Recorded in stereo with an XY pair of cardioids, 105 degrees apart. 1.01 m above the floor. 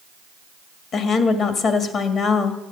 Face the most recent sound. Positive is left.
turn(degrees=60)